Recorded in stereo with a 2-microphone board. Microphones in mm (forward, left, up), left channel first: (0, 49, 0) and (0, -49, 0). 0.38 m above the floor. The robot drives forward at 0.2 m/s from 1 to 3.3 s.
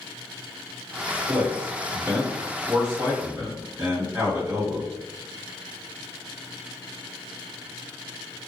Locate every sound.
1.3 s a man speaking: 25° right (ahead or behind), 1.5 m; by 4.9 s 20° right (ahead or behind), 1.7 m